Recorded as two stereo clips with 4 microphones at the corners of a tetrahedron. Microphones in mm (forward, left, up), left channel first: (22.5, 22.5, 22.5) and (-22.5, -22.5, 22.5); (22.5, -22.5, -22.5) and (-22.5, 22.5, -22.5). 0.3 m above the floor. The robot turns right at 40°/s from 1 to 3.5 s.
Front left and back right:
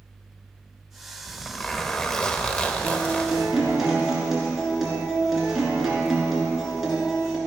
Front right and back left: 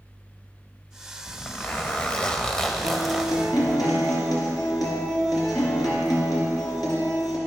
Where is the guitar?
75° right, 2.5 m; by 7.4 s 50° right, 2.5 m.